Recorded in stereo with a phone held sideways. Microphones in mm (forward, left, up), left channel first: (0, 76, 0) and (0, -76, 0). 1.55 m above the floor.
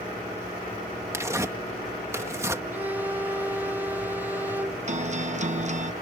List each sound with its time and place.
1.1 s tearing paper: 20° right (ahead or behind)
2.7 s a violin: 10° right (ahead or behind)
4.9 s a guitar: 50° right (ahead or behind)